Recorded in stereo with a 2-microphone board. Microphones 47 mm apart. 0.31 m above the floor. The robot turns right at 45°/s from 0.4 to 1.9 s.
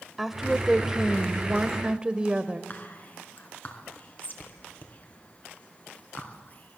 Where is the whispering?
40° left (ahead or behind), 3.5 m.